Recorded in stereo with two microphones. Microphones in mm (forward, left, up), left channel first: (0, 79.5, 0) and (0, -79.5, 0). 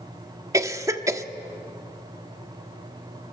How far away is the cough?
About 1.1 m.